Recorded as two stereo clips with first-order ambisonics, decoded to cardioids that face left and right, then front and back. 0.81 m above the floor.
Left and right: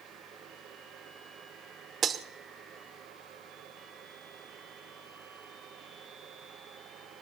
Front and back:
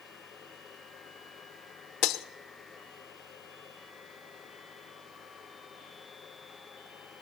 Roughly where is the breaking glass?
Ahead right.